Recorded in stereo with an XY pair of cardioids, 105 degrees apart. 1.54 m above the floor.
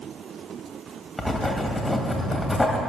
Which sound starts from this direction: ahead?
Writing, at 1.2 s.